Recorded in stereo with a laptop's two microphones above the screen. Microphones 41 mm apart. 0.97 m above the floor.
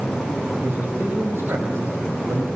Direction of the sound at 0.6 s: 75° right (ahead or behind).